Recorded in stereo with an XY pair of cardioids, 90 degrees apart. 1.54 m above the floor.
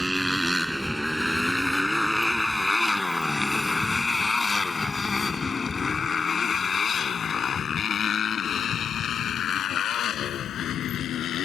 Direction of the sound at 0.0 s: 10° right.